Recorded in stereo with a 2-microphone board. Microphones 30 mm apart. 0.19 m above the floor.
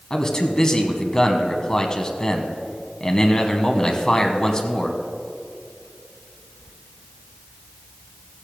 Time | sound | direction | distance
0.1 | a man speaking | 25° left (ahead or behind) | 1.1 m